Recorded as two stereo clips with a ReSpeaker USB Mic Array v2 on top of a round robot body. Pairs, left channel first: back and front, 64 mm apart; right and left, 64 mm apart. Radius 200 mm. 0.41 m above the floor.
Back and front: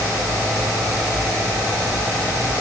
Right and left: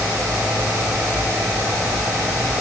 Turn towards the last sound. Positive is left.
No sound to turn to.